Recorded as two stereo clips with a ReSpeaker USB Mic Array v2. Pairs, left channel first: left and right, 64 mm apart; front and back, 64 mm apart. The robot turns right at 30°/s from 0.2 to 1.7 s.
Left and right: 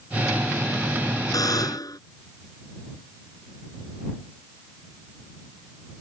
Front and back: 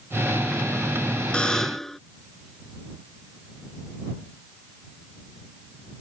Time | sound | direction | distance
1.3 | a buzzer | 75° left | ?